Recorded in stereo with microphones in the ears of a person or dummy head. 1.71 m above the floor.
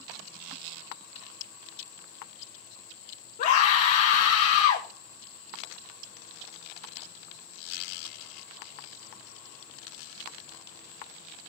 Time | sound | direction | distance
3.4 | a scream | 50° left (ahead or behind) | 2.5 m